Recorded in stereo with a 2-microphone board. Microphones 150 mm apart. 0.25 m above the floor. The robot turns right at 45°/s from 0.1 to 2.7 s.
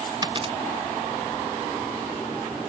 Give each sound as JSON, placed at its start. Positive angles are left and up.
{"t": 0.2, "sound": "a dropped coin", "side_deg": -25}